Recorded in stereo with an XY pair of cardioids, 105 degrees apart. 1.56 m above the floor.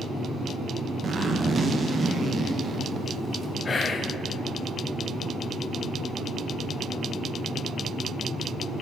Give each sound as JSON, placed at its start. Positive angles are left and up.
{"t": 1.0, "sound": "a zipper", "azimuth_deg": -35, "distance_m": 0.7}
{"t": 3.6, "sound": "whispering", "azimuth_deg": 35, "distance_m": 0.5}